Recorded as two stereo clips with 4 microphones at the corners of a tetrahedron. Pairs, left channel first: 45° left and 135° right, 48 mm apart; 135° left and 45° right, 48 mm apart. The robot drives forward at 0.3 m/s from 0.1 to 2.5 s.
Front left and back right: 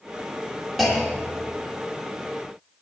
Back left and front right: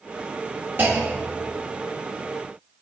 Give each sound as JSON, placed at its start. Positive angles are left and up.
{"t": 0.8, "sound": "a clunk", "azimuth_deg": -50, "distance_m": 1.2}